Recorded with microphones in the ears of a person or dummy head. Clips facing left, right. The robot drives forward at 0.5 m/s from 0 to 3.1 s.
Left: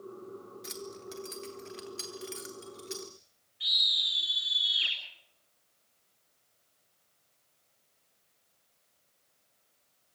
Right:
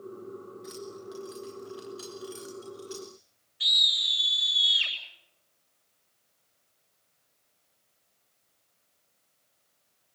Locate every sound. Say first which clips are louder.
0.6 s keys jangling: right 1 dB; 45° left (ahead or behind), 3 m; by 3.1 s 30° left (ahead or behind), 3.5 m
3.6 s a scream: right 4 dB; 60° right (ahead or behind), 9 m